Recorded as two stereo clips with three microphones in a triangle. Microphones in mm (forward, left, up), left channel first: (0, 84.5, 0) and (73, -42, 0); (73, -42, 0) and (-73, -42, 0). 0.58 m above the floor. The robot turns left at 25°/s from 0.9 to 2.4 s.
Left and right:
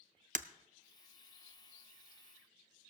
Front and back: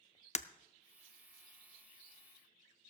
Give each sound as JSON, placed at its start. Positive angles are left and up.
{"t": 0.3, "sound": "breaking glass", "azimuth_deg": -35, "distance_m": 0.5}